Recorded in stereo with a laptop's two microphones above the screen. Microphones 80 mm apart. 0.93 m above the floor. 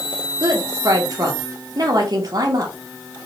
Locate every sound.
0.4 s a woman speaking: 45° right (ahead or behind), 0.7 m